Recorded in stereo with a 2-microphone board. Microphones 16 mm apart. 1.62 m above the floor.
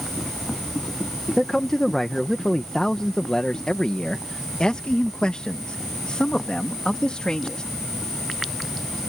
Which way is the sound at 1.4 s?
20° left (ahead or behind).